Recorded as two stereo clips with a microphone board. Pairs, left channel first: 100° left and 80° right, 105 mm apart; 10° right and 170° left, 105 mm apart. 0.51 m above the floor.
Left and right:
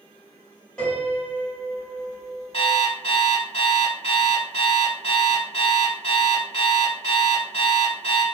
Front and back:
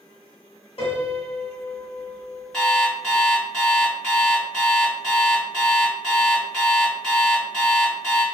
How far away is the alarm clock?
About 1.1 m.